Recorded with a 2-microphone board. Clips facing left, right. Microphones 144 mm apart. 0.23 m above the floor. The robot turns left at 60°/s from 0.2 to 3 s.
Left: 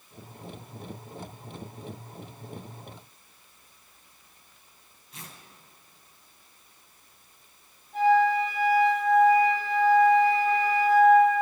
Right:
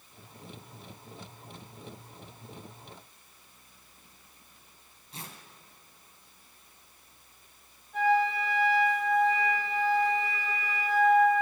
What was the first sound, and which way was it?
Tearing paper, 30° right (ahead or behind).